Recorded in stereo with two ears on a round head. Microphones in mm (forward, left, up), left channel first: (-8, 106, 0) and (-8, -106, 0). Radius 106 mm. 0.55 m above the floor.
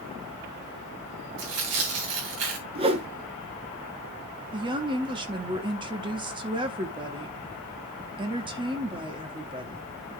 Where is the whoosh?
25° right (ahead or behind), 1.1 m.